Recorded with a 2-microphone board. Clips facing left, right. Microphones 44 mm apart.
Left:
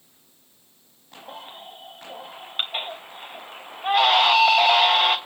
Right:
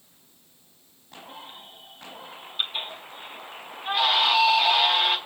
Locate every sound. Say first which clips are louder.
1.3 s a baby crying: left 5 dB; 50° left (ahead or behind), 3 m